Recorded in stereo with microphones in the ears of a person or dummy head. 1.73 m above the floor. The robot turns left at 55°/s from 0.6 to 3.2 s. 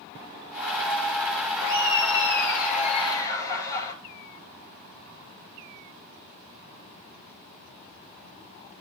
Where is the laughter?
110° left, 3 m; by 3.9 s 20° left, 3 m.